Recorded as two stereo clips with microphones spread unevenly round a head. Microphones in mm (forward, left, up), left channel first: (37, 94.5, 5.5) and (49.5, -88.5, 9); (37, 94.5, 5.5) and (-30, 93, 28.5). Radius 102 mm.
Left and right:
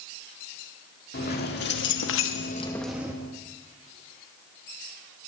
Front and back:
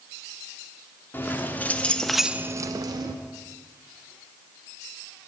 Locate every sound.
1.1 s keys jangling: 65° left, 2 m; by 3.1 s 165° right, 1.3 m